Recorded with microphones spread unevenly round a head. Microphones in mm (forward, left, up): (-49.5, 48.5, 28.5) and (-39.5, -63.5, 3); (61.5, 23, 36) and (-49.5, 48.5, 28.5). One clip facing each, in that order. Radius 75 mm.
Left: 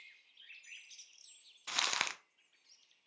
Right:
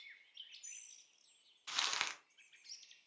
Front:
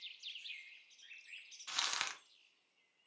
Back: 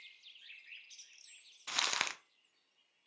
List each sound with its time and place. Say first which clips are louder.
1.7 s crumpling: left 4 dB, back 4 dB; 135° left, 0.5 m